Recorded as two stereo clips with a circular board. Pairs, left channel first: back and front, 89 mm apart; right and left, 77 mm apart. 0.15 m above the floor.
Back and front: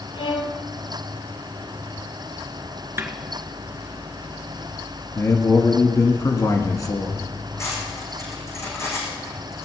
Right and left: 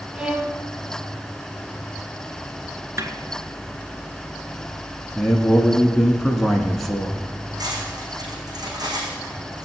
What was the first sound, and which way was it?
A violin, 165° left.